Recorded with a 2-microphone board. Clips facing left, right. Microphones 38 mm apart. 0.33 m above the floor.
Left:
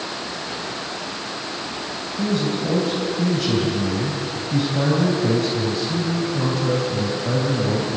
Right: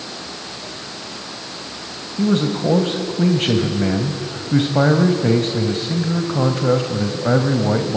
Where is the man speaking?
50° right (ahead or behind), 1.9 m.